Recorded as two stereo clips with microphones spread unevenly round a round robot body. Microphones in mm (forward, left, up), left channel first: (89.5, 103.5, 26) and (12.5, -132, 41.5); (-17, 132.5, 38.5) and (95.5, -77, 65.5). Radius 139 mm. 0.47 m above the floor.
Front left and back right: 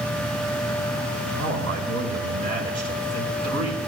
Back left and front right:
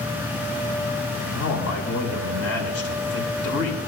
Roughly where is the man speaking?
Behind left.